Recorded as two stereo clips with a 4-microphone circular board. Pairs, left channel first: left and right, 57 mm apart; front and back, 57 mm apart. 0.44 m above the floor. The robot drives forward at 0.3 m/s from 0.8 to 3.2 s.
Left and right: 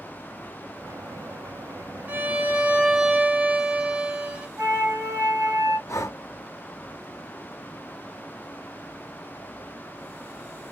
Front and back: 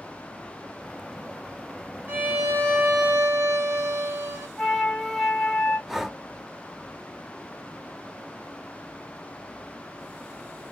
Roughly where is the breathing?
Left.